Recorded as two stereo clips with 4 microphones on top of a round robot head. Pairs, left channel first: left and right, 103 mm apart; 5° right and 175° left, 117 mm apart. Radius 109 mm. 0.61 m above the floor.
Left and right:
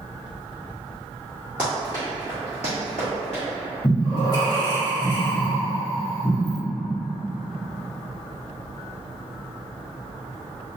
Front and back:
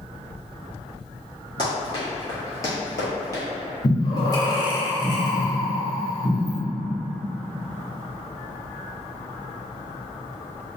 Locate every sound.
1.6 s running footsteps: 15° right, 0.6 m; by 3.4 s 55° left, 1.1 m
3.8 s breathing: 45° left, 0.9 m